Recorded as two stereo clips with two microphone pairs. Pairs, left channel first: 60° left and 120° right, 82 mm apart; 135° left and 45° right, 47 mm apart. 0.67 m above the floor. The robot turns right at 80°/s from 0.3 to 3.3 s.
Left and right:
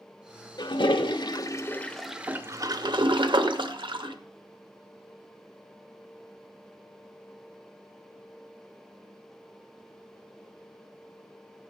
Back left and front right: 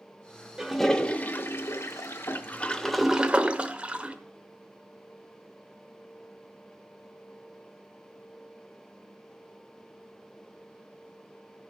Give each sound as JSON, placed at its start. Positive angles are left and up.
{"t": 0.6, "sound": "a toilet flushing", "azimuth_deg": 35, "distance_m": 0.9}